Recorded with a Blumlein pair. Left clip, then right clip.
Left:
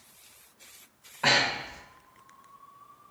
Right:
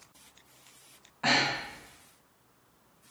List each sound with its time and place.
1.2 s breathing: 15° left, 1.6 m